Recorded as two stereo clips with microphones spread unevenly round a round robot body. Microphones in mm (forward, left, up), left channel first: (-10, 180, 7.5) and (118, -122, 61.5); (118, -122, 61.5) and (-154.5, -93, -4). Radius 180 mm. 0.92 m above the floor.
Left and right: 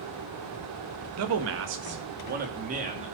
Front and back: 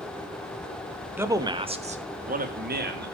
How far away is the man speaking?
About 1.3 m.